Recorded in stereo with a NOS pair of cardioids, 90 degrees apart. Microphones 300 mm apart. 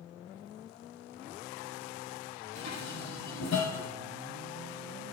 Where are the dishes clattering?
70° left, 5 m.